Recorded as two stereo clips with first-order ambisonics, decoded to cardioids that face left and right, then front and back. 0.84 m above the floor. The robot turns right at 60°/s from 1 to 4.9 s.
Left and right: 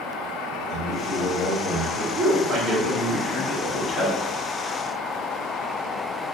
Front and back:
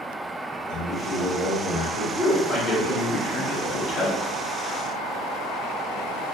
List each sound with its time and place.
0.7 s a man speaking: 10° left, 1.6 m; by 2.0 s 70° left, 1.6 m
2.1 s a man speaking: 85° right, 1.2 m; by 4.2 s 35° left, 1.2 m